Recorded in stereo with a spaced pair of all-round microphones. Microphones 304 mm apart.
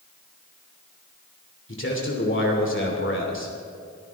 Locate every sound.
1.7 s a man speaking: 40° left (ahead or behind), 3 m